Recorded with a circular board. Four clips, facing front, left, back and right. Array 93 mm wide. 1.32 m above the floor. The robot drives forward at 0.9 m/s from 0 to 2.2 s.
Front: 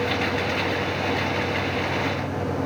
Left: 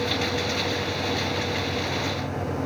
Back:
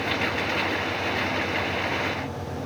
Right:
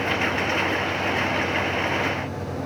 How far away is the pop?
I don't hear a pop.